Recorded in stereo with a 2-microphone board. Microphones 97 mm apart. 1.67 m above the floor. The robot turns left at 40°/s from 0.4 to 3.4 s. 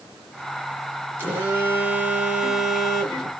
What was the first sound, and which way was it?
A phone buzzing, 20° right (ahead or behind).